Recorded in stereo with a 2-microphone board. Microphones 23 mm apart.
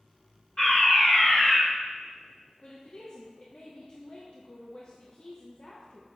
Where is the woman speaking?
45° left (ahead or behind), 1.0 m.